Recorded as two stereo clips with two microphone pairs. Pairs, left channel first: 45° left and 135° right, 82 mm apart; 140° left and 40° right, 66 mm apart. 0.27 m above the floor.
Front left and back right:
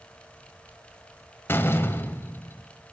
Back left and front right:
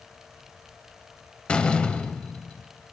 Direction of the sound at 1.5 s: 80° left.